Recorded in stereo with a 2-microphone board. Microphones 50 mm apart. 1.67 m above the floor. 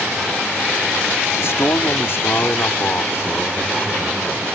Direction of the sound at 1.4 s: 60° left (ahead or behind).